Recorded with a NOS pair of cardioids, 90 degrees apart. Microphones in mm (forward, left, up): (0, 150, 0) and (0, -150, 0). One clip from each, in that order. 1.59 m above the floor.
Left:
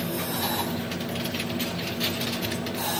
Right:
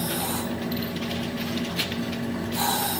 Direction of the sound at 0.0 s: 15° right.